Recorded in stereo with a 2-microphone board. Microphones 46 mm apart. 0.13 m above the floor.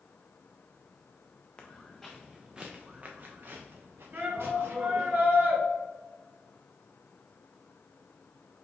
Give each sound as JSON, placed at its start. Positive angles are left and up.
{"t": 1.6, "sound": "footsteps", "side_deg": 25, "distance_m": 0.9}
{"t": 4.1, "sound": "a shout", "side_deg": -45, "distance_m": 1.6}